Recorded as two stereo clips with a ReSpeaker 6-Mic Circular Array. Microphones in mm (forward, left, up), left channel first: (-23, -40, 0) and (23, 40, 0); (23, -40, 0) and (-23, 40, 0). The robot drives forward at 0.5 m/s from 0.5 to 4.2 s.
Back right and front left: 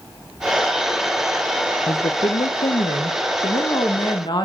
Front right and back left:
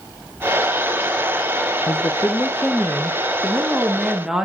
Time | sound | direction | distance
1.9 | a woman speaking | 95° right | 0.5 m